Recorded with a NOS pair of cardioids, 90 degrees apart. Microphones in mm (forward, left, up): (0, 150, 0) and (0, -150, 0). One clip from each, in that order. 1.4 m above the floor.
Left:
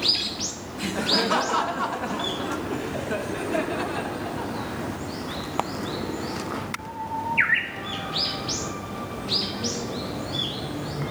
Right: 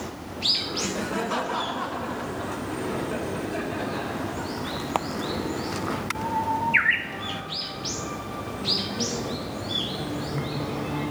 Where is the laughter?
15° left, 0.8 m; by 4.5 s 55° left, 2.5 m.